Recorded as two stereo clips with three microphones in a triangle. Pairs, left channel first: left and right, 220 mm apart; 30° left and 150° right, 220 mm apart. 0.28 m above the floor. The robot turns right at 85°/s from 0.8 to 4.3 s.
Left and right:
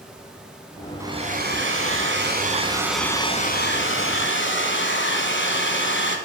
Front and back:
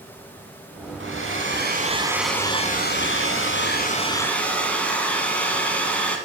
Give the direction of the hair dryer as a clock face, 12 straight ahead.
6 o'clock.